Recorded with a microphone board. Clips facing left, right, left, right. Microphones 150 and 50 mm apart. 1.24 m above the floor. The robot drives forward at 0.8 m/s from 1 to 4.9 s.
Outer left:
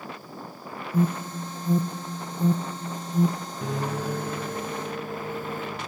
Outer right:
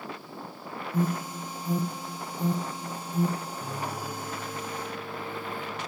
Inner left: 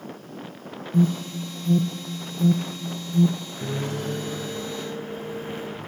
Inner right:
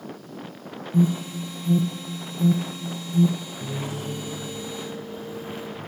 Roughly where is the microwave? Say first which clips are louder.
Outer left 5 dB, inner left 6 dB; left.